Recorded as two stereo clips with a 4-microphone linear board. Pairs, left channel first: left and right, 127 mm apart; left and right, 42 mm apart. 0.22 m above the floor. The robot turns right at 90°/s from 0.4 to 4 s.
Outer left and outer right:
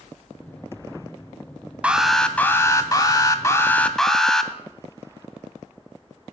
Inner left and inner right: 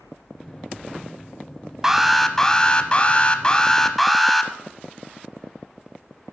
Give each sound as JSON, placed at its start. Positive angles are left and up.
{"t": 1.8, "sound": "an alarm", "side_deg": -10, "distance_m": 0.8}